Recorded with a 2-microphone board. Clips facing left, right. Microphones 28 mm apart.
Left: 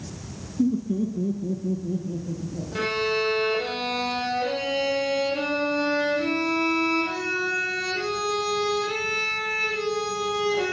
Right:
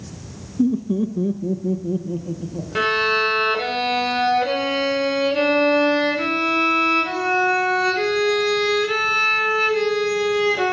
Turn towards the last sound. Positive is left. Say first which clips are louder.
# right 6 dB
turn(degrees=-35)  # may be behind; listen again after turning